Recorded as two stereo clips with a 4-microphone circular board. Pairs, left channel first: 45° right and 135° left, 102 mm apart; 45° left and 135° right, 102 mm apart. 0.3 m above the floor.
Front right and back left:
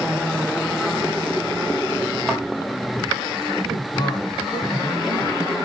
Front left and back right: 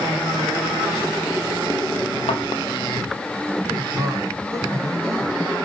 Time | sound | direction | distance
2.3 | a thud | 45° left | 2 m
3.7 | a man speaking | 85° right | 3 m